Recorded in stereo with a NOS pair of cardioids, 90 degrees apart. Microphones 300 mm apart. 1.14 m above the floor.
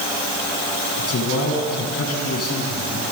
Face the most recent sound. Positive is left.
turn(degrees=50)